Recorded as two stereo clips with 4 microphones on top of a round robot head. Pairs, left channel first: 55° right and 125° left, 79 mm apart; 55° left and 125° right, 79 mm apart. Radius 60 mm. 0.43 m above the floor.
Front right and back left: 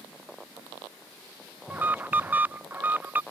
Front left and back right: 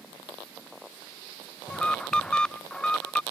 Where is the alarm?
115° left.